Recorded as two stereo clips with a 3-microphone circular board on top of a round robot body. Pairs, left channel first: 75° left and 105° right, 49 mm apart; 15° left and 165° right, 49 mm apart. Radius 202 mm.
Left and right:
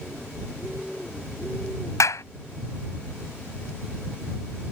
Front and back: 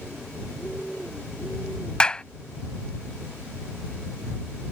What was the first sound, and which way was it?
A clap, 85° left.